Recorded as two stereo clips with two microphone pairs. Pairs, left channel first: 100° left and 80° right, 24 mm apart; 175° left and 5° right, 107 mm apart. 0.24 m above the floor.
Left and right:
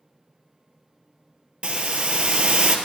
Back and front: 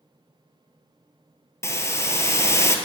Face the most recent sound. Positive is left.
turn(degrees=-120)